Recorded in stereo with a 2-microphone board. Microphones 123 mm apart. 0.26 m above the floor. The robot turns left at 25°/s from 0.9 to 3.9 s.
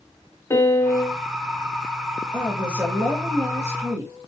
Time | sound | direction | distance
0.5 | a piano | 25° left (ahead or behind) | 0.5 m
2.3 | a woman speaking | 10° right (ahead or behind) | 1.2 m